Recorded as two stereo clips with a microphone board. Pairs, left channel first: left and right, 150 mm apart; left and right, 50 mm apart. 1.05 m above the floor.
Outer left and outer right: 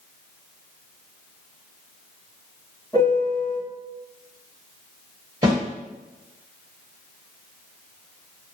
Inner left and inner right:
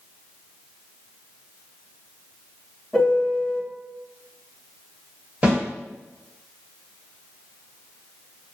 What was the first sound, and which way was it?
A piano, 20° left (ahead or behind).